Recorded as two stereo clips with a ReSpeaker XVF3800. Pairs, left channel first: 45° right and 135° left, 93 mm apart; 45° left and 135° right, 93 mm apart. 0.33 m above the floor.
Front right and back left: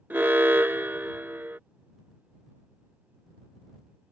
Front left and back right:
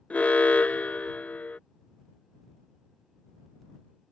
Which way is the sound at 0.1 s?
100° left.